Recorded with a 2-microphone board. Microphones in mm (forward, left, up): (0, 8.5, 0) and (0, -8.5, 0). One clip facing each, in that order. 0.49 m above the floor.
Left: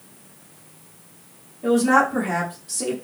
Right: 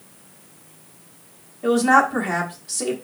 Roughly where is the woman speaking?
Centre.